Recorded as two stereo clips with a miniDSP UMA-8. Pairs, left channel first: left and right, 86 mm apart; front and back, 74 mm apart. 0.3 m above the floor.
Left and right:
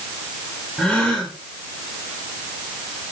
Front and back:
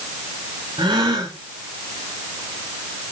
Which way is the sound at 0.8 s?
175° left.